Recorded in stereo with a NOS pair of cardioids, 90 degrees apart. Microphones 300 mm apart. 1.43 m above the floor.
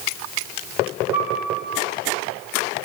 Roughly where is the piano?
Ahead left.